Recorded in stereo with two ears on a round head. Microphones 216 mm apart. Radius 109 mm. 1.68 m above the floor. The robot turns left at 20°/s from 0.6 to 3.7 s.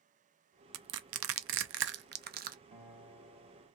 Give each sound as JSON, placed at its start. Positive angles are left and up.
{"t": 0.7, "sound": "crushing", "side_deg": -70, "distance_m": 0.5}
{"t": 2.7, "sound": "a guitar", "side_deg": -45, "distance_m": 2.5}